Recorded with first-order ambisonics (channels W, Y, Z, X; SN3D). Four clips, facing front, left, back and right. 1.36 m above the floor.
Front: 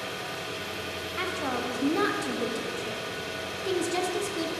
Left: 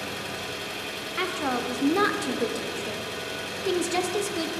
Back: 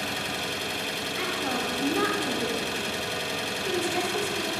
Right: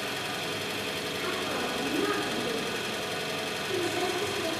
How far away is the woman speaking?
About 0.9 m.